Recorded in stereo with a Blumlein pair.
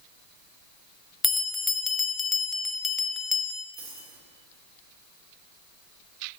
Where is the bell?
10° left, 0.6 m.